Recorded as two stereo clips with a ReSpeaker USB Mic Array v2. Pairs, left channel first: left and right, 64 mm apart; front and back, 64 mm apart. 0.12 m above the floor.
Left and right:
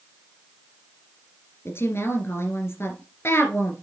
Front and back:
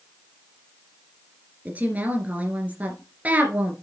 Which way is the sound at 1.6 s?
120° left.